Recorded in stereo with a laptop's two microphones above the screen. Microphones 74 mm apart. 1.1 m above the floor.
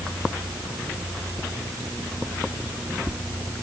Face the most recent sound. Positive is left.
No sound to turn to.